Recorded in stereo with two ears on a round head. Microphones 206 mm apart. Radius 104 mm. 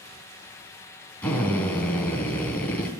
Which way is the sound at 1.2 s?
5° left (ahead or behind).